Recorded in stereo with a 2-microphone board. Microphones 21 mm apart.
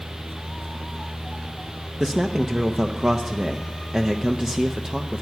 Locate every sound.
2.0 s a man speaking: 25° right (ahead or behind), 0.7 m